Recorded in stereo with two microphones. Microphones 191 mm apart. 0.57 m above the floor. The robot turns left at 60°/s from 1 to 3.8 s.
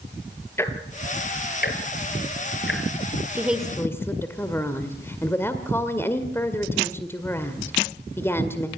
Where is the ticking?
10° left (ahead or behind), 2.5 m; by 2.8 s 60° left (ahead or behind), 2.5 m.